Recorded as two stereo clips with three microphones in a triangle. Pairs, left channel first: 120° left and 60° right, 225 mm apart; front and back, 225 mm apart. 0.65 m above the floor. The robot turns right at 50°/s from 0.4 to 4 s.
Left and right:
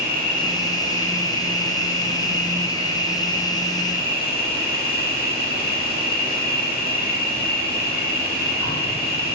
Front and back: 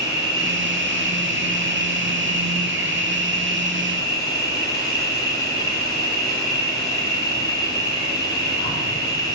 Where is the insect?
110° right, 0.9 m; by 9.4 s 70° left, 0.9 m.